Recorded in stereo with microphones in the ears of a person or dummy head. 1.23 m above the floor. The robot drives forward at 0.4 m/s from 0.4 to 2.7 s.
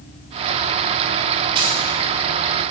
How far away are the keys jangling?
About 2.5 m.